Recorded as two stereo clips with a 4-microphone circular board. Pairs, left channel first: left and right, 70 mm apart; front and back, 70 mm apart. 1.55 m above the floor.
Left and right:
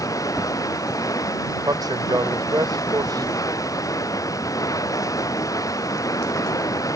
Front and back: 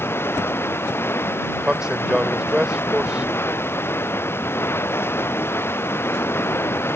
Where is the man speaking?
100° right.